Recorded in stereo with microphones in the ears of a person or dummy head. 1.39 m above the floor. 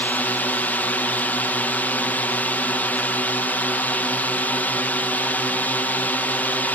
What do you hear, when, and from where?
0.0 s a drone: 10° left (ahead or behind)